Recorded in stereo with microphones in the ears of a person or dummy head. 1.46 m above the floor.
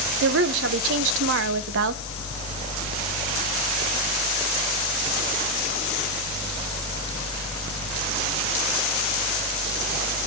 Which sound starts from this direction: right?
A woman speaking, at 0.2 s.